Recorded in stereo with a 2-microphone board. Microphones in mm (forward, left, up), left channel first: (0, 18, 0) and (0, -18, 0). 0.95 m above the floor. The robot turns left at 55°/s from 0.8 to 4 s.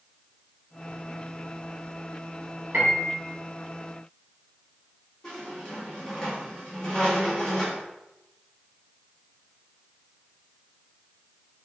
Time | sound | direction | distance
2.7 | a piano | 60° right (ahead or behind) | 1.8 m
5.2 | a squeak | 20° left (ahead or behind) | 1.9 m